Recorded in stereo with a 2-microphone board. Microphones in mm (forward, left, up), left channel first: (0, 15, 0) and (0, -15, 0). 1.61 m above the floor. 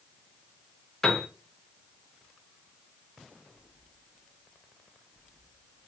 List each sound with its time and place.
1.0 s a piano: 20° left (ahead or behind), 0.8 m